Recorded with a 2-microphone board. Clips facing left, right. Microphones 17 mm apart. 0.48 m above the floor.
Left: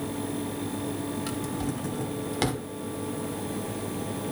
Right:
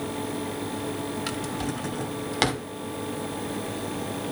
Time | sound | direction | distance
1.3 | a drawer | 25° right (ahead or behind) | 0.7 m